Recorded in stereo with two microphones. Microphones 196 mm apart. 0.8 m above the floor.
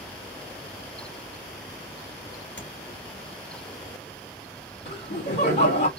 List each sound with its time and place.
2.6 s tapping: 75° left (ahead or behind), 2.5 m
4.8 s laughter: 60° left (ahead or behind), 2 m